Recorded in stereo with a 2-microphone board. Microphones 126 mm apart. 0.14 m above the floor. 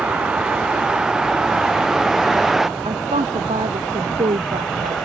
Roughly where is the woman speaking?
Right.